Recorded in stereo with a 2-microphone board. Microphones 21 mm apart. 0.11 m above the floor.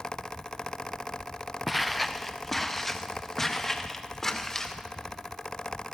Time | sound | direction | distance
1.7 | footsteps | centre (ahead or behind) | 0.9 m